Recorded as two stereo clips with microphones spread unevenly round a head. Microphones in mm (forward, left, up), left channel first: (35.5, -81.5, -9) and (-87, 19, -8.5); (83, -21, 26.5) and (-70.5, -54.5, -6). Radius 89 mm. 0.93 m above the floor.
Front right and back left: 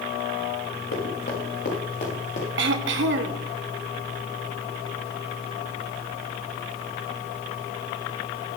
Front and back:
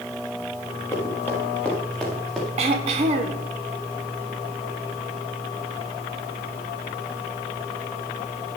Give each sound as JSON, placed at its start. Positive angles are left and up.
{"t": 0.9, "sound": "running footsteps", "azimuth_deg": -60, "distance_m": 5.0}
{"t": 2.6, "sound": "throat clearing", "azimuth_deg": 130, "distance_m": 1.1}